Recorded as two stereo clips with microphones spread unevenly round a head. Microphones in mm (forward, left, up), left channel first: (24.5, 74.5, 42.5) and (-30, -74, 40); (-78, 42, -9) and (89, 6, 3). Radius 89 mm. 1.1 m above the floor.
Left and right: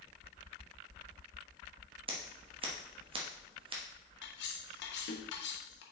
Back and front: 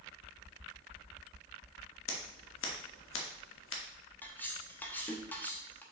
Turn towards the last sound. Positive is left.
turn(degrees=85)